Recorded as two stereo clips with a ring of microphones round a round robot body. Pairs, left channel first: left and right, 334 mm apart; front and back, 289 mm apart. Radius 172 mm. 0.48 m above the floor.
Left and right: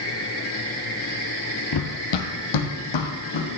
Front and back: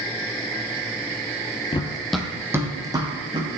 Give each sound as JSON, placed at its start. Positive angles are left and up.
{"t": 1.7, "sound": "running footsteps", "azimuth_deg": 70, "distance_m": 0.8}